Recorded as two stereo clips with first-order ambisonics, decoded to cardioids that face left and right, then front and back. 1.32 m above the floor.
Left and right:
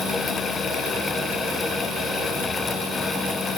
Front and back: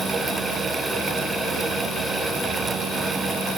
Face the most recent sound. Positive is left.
No sound to turn to.